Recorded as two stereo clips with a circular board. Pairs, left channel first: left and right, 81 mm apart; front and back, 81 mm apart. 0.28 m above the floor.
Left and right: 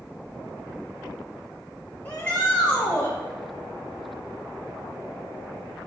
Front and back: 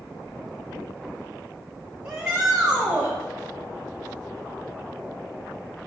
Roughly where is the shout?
Behind left.